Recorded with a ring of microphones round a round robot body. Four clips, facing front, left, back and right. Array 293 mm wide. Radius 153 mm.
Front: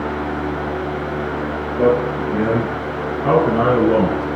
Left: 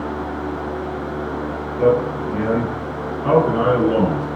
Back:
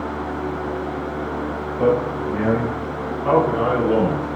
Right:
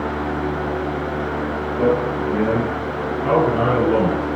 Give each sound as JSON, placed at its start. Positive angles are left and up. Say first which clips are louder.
{"t": 1.8, "sound": "a man speaking", "louder": "left 2 dB, front 3 dB", "azimuth_deg": -10, "distance_m": 6.0}